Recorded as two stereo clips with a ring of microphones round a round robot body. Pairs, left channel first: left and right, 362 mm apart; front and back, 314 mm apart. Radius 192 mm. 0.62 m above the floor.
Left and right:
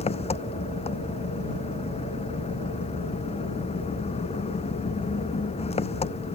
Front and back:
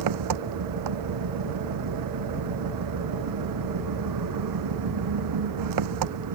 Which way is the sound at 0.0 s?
165° left.